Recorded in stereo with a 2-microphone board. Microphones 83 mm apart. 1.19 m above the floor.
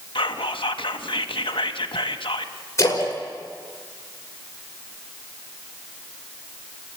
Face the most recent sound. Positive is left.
turn(degrees=35)  # may be behind; listen again after turning